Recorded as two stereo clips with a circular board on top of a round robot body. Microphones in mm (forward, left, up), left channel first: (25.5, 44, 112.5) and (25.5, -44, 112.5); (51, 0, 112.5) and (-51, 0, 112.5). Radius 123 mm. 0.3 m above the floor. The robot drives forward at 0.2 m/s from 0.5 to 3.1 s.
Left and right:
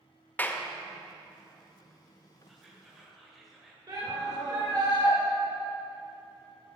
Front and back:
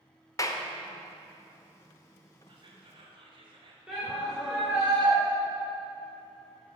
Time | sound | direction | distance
0.4 | a clap | 30° left | 0.8 m
2.5 | whispering | 175° right | 1.5 m
3.9 | a shout | 100° right | 2 m